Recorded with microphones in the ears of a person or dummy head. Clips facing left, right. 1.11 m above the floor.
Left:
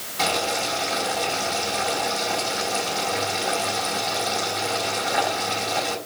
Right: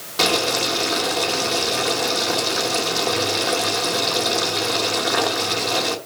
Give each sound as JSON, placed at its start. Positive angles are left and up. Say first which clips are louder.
{"t": 0.2, "sound": "boiling", "louder": "right 4 dB", "side_deg": -80, "distance_m": 2.5}